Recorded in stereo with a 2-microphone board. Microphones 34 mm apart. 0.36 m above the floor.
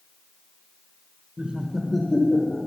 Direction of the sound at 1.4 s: 35° right (ahead or behind).